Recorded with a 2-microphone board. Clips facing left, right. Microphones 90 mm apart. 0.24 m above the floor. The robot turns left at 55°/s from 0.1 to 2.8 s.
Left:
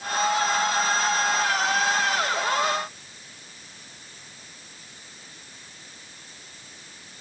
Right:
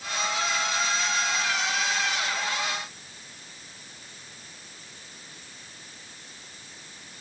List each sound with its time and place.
Only background noise.